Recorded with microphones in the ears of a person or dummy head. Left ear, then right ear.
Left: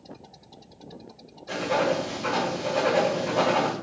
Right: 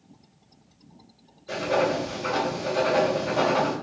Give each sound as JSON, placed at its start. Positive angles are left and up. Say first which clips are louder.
{"t": 1.5, "sound": "writing", "louder": "right 1 dB", "side_deg": 15, "distance_m": 1.3}